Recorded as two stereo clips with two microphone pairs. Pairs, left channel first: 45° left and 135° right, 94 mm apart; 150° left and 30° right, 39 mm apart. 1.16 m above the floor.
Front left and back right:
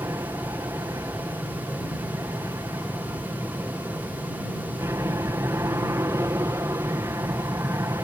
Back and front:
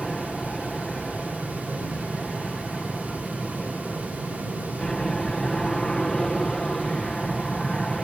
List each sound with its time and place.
0.0 s an aircraft: 145° right